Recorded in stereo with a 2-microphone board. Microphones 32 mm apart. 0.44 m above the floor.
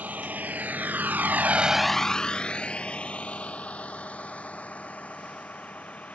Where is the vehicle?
65° right (ahead or behind); by 6.2 s 50° left (ahead or behind).